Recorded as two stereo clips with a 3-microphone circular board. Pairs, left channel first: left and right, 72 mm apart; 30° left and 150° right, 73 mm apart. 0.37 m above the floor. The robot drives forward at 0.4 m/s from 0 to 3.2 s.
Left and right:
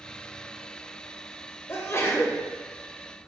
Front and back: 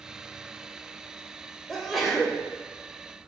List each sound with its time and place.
1.7 s a sneeze: 110° left, 1.0 m; by 2.4 s 130° left, 1.1 m